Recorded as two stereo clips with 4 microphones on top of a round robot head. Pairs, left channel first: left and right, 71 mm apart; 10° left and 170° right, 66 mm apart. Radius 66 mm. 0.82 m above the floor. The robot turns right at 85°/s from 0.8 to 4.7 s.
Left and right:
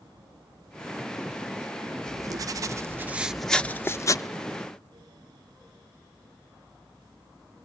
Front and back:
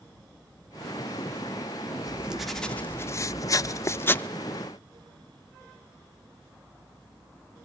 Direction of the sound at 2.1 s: 115° right.